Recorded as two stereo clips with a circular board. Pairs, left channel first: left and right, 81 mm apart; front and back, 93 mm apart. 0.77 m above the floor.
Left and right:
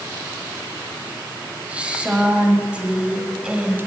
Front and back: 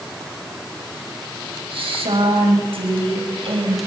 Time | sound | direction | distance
1.7 | a woman speaking | 165° right | 5 m